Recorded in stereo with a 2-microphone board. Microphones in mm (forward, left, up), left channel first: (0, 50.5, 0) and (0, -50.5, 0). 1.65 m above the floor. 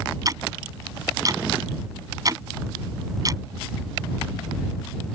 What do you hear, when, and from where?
0.2 s ticking: 40° right (ahead or behind)